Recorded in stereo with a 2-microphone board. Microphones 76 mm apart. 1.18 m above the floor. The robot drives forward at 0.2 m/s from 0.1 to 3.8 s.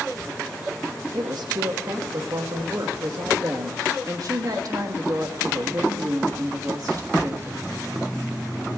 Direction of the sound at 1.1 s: 70° right (ahead or behind).